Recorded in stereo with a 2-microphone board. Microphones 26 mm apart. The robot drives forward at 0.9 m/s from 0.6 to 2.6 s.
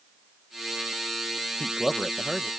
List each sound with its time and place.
1.6 s a man speaking: 20° left (ahead or behind)